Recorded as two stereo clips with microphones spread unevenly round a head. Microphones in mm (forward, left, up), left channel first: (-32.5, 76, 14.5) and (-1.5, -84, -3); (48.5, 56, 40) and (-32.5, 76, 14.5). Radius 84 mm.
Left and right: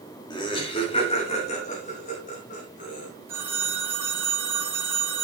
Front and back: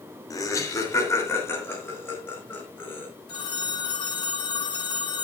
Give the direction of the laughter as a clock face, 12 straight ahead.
11 o'clock.